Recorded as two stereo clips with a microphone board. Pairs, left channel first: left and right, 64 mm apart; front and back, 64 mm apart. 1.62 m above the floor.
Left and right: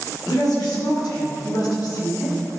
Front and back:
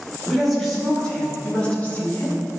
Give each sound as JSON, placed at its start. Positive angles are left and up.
{"t": 0.3, "sound": "a woman speaking", "azimuth_deg": 90, "distance_m": 3.0}